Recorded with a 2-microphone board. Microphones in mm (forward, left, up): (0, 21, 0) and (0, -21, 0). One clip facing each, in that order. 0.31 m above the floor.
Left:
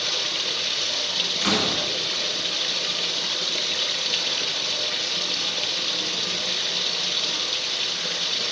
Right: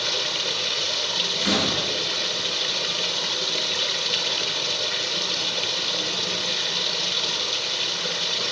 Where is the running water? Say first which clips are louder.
Right 1 dB; centre (ahead or behind), 0.9 m.